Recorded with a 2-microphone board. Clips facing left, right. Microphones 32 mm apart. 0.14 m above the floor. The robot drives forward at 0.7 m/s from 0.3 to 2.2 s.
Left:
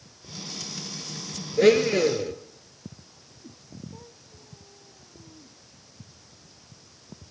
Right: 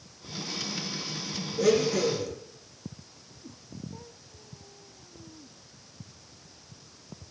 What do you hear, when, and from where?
1.6 s a blender: 60° left (ahead or behind), 1.4 m; by 2.3 s 55° left (ahead or behind), 1.5 m